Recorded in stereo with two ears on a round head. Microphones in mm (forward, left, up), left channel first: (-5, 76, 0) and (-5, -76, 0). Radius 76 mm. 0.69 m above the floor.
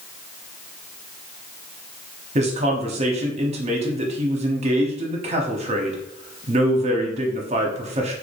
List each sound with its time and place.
2.4 s a man speaking: 40° right (ahead or behind), 1.1 m